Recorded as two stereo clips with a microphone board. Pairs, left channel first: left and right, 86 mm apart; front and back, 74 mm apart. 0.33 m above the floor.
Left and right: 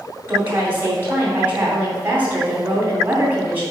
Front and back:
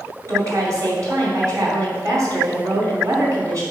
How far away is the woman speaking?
About 2.5 m.